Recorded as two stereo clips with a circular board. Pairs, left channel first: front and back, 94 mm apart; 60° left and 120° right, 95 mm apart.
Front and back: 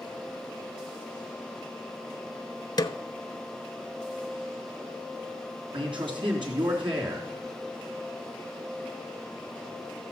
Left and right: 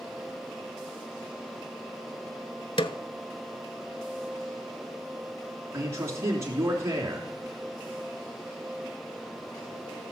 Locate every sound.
2.8 s a snare drum: 40° left, 0.5 m
5.7 s a man speaking: 175° right, 3 m